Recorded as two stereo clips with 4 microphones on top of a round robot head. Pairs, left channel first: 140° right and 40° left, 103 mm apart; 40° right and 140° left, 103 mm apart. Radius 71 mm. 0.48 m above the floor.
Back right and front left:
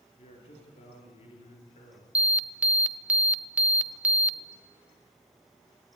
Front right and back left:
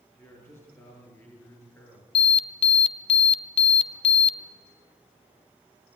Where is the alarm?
35° right, 0.8 m.